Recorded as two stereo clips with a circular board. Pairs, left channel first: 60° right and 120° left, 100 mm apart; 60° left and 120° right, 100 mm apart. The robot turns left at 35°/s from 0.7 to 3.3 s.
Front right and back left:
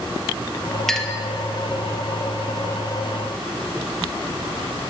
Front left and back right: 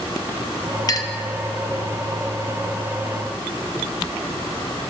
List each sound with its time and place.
0.9 s a clink: 25° left, 0.5 m; by 1.2 s 15° left, 0.5 m